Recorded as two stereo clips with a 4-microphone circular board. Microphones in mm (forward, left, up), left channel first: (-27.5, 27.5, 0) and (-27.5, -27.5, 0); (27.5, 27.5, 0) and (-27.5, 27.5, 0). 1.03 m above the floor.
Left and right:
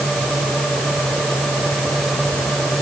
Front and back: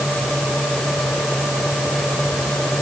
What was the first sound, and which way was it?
Only background noise.